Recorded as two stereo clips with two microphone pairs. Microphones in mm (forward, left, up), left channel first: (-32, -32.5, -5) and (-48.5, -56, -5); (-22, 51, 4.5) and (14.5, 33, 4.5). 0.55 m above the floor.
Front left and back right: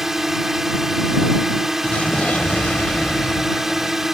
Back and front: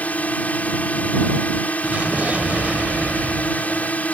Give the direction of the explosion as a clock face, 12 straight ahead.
11 o'clock.